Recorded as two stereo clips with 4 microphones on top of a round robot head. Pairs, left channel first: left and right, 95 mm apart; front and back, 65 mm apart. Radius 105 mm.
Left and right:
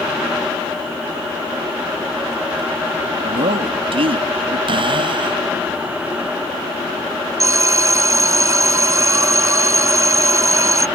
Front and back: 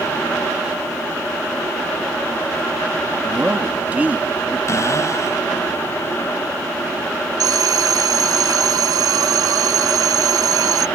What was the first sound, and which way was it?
A man speaking, 110° right.